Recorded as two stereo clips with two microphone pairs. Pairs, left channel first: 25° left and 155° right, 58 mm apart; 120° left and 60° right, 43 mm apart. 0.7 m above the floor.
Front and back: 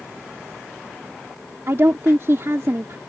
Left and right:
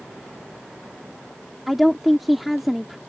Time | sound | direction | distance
1.7 | a woman speaking | 145° right | ?